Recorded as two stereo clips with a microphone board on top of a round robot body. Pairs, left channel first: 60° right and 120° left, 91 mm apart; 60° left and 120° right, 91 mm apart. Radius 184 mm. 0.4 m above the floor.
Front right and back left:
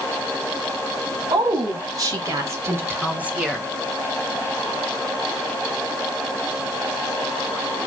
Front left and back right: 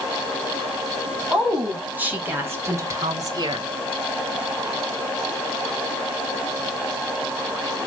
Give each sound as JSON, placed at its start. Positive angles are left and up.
{"t": 1.3, "sound": "a woman speaking", "azimuth_deg": 160, "distance_m": 4.5}